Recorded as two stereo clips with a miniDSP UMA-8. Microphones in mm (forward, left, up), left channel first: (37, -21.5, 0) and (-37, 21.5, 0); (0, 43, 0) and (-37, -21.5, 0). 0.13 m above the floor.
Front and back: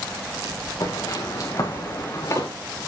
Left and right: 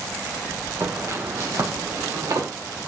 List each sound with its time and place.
0.8 s footsteps: 70° right, 5.5 m; by 2.5 s 80° right, 5.5 m